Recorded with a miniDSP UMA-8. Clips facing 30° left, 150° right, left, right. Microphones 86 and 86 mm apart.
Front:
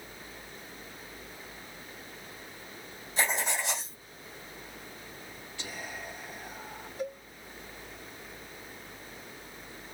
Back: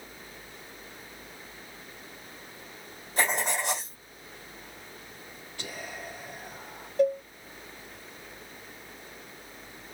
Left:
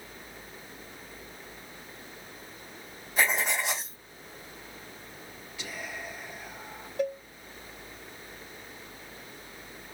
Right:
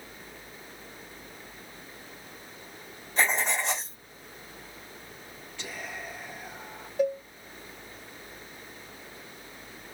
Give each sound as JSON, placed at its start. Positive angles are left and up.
{"t": 3.2, "sound": "writing", "azimuth_deg": 175, "distance_m": 3.0}
{"t": 5.6, "sound": "whispering", "azimuth_deg": 175, "distance_m": 3.0}
{"t": 7.0, "sound": "a cowbell", "azimuth_deg": -175, "distance_m": 2.5}